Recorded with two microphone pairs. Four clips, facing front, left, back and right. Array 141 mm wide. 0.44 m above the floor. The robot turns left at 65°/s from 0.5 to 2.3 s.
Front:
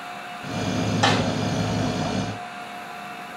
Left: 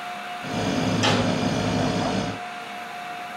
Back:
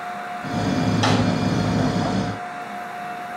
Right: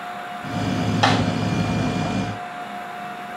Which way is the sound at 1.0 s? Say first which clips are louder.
Right 5 dB, even; 70° right.